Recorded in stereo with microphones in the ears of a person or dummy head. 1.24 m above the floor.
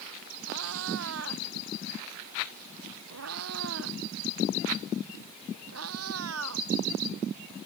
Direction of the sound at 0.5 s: 80° right.